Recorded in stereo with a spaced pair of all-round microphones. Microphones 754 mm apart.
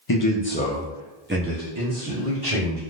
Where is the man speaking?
35° left (ahead or behind), 0.5 m; by 2.8 s 35° right (ahead or behind), 1.3 m.